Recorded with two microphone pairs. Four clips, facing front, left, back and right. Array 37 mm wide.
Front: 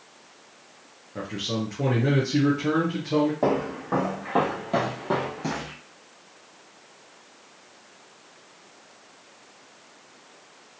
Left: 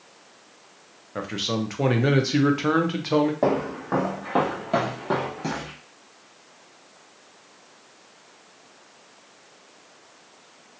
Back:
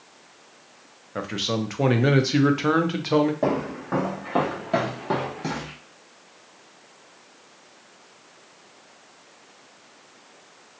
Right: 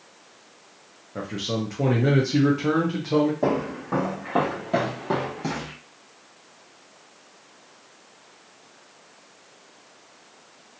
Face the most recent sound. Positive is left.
turn(degrees=-170)